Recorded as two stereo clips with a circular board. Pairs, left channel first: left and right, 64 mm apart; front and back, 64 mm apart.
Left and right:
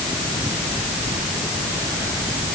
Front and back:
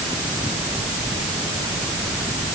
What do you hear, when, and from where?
Only background noise.